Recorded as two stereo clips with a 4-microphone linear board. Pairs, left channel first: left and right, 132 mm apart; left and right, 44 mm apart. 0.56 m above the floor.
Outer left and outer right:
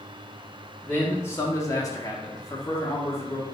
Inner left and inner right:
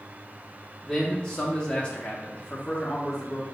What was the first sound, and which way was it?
A man speaking, 15° left (ahead or behind).